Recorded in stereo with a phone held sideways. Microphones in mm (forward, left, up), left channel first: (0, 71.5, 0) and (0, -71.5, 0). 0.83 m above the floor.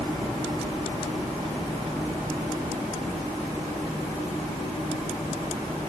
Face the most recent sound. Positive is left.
No sound to turn to.